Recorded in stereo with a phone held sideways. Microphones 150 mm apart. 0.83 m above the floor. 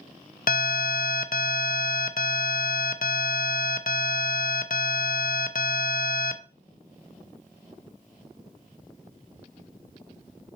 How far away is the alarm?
About 0.5 m.